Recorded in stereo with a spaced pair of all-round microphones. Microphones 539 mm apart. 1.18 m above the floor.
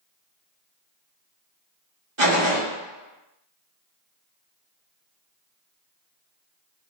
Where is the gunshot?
55° right (ahead or behind), 1.2 m.